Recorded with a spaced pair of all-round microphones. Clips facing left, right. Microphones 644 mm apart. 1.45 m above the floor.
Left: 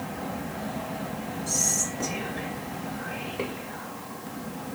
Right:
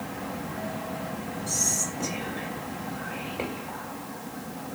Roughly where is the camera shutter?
No camera shutter in this recording.